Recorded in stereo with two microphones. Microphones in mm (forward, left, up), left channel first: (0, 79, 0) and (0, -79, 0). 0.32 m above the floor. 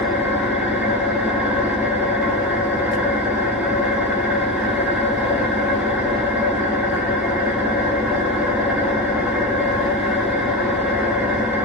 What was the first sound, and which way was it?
An engine running, 10° right (ahead or behind).